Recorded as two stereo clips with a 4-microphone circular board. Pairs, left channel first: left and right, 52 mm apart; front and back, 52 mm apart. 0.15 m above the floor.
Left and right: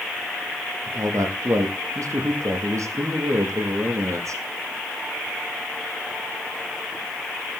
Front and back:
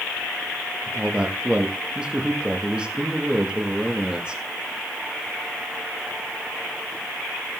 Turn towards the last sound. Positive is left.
turn(degrees=-110)